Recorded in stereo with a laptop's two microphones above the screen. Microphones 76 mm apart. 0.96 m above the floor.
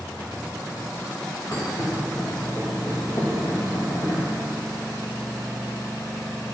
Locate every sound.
1.5 s a thud: 50° left (ahead or behind), 2.5 m